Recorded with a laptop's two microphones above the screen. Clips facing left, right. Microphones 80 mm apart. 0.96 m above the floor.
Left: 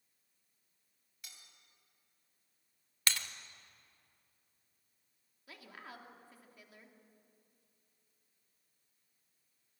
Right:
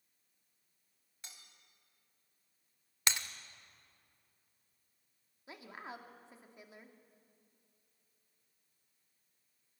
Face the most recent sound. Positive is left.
turn(degrees=-25)  # may be behind; listen again after turning